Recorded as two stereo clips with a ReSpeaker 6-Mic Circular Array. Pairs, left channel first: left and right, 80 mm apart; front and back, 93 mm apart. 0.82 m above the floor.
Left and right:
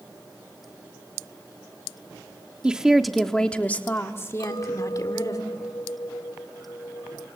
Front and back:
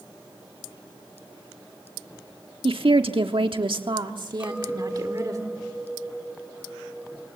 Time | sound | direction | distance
2.6 | a woman speaking | 165° right | 1.5 m
4.4 | a clink | 100° left | 3 m